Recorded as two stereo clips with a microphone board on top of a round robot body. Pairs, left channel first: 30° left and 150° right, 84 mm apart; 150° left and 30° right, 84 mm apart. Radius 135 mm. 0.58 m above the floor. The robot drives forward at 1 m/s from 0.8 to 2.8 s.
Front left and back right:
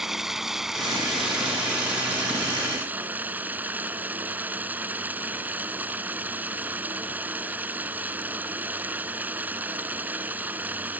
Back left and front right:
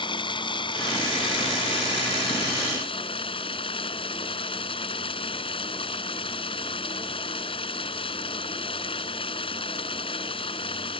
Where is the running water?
125° left; by 11.0 s 140° left.